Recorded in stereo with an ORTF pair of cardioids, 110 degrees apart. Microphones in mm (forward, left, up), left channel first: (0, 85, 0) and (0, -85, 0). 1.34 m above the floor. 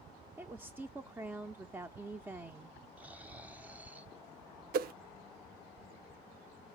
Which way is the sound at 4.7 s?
60° right.